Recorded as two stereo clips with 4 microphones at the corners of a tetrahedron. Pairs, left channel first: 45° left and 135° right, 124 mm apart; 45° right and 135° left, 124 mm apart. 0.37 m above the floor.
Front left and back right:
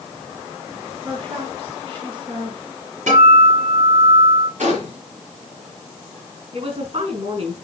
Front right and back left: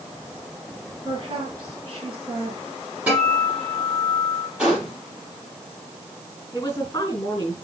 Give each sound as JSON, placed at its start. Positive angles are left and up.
{"t": 1.0, "sound": "a woman speaking", "azimuth_deg": -175, "distance_m": 4.0}
{"t": 3.1, "sound": "a guitar", "azimuth_deg": -145, "distance_m": 7.0}
{"t": 4.6, "sound": "a gunshot", "azimuth_deg": -140, "distance_m": 5.0}
{"t": 6.5, "sound": "a woman speaking", "azimuth_deg": -110, "distance_m": 4.5}